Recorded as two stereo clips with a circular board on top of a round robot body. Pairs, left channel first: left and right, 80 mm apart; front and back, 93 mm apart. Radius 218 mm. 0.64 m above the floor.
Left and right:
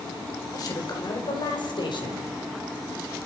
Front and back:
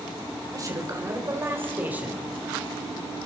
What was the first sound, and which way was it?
A man speaking, 130° left.